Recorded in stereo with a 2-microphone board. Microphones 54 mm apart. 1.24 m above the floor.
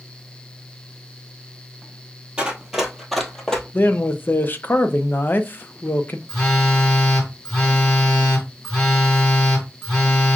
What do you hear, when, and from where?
2.4 s running footsteps: 20° right (ahead or behind), 1.3 m; by 3.6 s 15° left (ahead or behind), 1.4 m
3.7 s a man speaking: 40° left (ahead or behind), 0.5 m
6.3 s a phone buzzing: 10° left (ahead or behind), 1.8 m